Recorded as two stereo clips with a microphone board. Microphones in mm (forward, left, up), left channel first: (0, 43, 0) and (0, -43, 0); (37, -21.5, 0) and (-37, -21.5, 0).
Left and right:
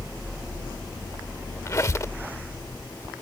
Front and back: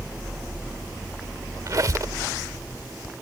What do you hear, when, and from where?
1.7 s a squeak: 140° left